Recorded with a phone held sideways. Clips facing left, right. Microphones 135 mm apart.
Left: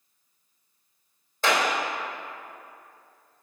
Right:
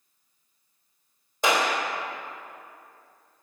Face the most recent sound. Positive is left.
turn(degrees=-15)  # may be behind; listen again after turning